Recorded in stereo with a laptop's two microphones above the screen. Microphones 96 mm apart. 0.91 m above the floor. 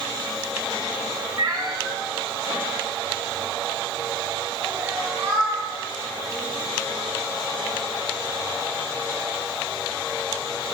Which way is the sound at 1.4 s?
40° right (ahead or behind).